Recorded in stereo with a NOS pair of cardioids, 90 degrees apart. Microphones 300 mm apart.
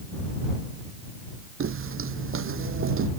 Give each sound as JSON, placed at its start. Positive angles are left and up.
{"t": 1.6, "sound": "footsteps", "azimuth_deg": -45}